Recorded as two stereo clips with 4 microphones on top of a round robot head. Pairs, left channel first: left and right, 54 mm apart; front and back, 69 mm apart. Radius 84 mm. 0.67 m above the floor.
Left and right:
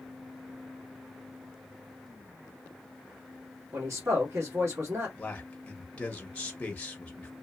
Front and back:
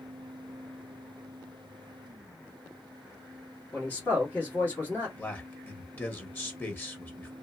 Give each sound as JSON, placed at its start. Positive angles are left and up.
{"t": 3.7, "sound": "a man speaking", "azimuth_deg": -65, "distance_m": 1.6}
{"t": 5.2, "sound": "a man speaking", "azimuth_deg": 40, "distance_m": 1.0}